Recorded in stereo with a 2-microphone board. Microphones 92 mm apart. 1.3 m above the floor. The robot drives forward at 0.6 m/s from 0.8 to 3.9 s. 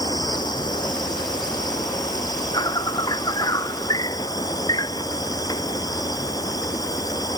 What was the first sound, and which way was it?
An insect, 50° left (ahead or behind).